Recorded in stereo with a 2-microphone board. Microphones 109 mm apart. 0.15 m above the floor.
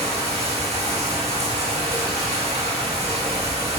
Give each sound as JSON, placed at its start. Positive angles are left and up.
{"t": 0.0, "sound": "running water", "side_deg": -75, "distance_m": 3.5}